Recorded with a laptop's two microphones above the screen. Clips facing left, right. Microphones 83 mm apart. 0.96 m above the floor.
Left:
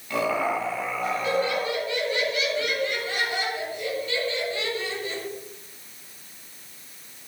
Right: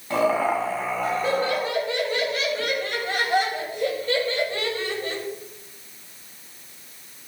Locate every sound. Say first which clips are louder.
0.1 s laughter: right 4 dB; 35° right (ahead or behind), 8.5 m; by 5.2 s 45° right (ahead or behind), 6.5 m